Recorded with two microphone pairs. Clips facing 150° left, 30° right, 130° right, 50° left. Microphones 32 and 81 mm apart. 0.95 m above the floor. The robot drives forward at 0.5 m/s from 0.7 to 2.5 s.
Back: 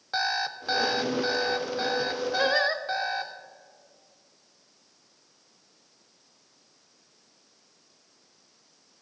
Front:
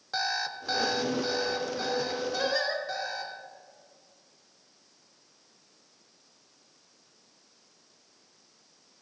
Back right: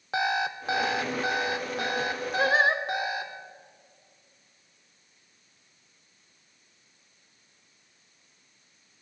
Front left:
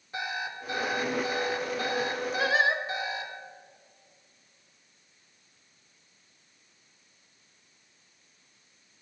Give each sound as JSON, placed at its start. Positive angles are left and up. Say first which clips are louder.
{"t": 0.1, "sound": "an alarm clock", "louder": "back 3 dB, back right 7 dB", "azimuth_deg": -135, "distance_m": 0.6}
{"t": 2.4, "sound": "singing", "louder": "back 6 dB, back right 3 dB", "azimuth_deg": -170, "distance_m": 0.7}